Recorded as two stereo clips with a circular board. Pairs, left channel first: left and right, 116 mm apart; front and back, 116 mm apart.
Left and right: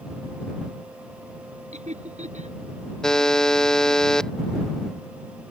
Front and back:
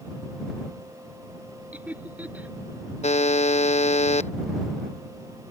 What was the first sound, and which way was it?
Laughter, 105° right.